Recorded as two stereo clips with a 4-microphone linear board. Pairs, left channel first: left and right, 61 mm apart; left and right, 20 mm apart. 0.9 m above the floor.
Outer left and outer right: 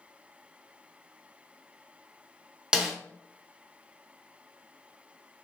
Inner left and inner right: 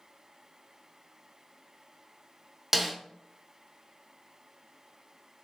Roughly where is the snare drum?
Centre.